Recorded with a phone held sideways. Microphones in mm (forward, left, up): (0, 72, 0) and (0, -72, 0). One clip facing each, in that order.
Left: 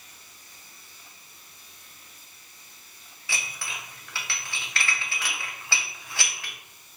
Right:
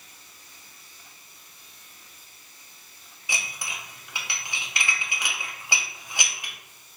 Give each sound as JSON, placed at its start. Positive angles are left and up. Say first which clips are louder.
{"t": 3.3, "sound": "dishes clattering", "louder": "right 1 dB", "side_deg": -20, "distance_m": 0.5}